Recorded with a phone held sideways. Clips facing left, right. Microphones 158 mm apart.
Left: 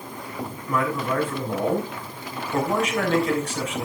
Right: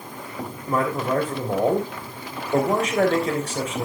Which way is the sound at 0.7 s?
35° right (ahead or behind).